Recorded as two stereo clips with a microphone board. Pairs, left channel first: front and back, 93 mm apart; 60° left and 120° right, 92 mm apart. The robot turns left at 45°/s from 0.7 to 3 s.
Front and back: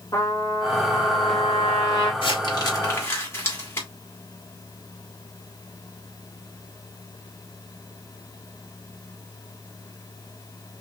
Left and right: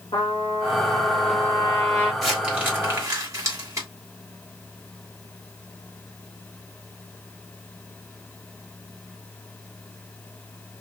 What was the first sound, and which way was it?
A trumpet, 50° left.